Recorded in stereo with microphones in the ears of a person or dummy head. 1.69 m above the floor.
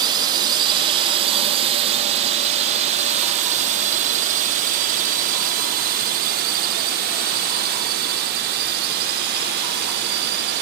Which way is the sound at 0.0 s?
25° right (ahead or behind).